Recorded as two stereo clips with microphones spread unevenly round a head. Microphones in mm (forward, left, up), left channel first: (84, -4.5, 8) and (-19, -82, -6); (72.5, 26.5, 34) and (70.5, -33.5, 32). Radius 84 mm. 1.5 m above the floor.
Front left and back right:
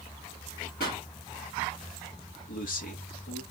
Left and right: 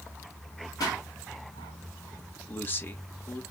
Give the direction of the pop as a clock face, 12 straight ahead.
9 o'clock.